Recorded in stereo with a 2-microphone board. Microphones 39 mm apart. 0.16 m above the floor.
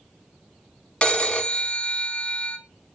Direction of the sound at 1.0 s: 25° left (ahead or behind).